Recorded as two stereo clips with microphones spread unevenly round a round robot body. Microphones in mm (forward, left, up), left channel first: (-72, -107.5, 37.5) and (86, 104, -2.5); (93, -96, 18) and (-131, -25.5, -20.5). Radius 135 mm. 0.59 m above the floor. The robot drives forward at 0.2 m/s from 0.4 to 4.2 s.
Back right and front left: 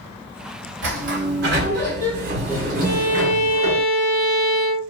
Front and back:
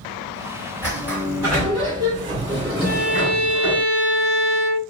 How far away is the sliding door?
About 1.6 m.